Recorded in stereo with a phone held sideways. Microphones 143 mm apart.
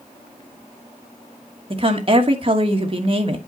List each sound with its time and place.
1.7 s a woman speaking: 40° right (ahead or behind), 1.3 m